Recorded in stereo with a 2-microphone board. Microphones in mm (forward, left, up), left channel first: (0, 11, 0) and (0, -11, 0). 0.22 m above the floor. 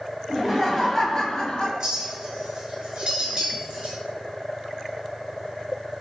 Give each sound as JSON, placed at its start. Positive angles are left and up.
{"t": 0.3, "sound": "laughter", "side_deg": -30, "distance_m": 1.1}
{"t": 1.8, "sound": "a clink", "side_deg": -40, "distance_m": 1.6}